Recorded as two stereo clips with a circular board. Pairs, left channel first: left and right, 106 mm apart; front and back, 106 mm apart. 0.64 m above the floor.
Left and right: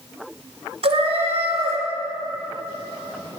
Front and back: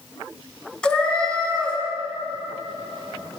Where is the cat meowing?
80° right, 1.3 m.